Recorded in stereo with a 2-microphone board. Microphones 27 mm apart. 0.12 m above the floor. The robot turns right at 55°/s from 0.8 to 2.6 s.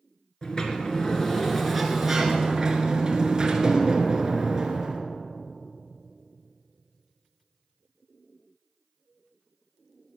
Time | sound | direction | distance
0.4 | a sliding door | 125° left | 1.9 m